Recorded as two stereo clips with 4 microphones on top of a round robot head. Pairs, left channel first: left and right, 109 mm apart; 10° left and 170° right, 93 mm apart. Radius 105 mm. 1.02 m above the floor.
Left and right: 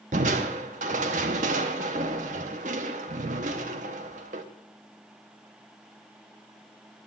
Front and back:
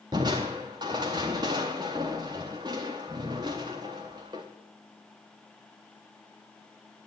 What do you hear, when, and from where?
0.1 s crushing: 110° right, 0.6 m